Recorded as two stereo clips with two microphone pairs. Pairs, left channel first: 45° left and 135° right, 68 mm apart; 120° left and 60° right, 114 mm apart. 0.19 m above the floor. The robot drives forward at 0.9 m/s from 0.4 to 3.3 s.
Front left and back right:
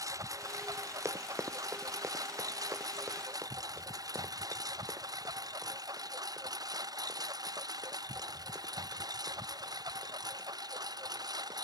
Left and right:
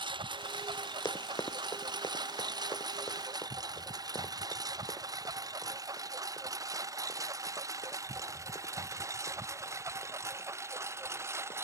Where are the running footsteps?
175° left; by 11.6 s 170° left.